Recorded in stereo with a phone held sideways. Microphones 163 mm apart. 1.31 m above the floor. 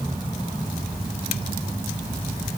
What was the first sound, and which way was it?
Only background noise.